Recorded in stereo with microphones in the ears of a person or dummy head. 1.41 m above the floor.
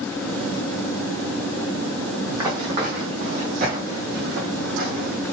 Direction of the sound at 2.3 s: 20° right (ahead or behind).